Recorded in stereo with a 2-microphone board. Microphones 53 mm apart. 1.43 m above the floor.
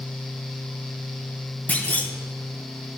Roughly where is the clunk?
Left.